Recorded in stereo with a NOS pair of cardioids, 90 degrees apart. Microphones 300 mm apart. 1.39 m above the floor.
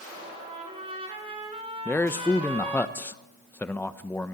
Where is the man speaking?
5° left, 1.0 m.